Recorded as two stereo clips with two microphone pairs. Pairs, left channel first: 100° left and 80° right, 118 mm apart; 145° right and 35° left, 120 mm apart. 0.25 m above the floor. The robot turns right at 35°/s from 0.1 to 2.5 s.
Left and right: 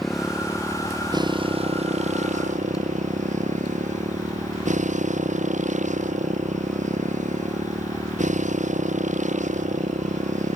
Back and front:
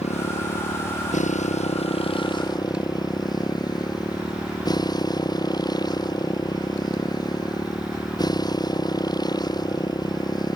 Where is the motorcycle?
175° right; by 10.6 s 90° right.